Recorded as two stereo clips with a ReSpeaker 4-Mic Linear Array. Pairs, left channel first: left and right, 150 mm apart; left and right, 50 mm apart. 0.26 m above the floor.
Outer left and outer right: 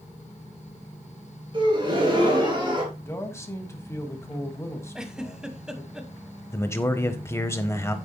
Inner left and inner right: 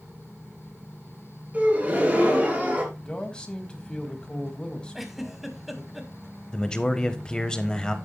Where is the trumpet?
I don't hear a trumpet.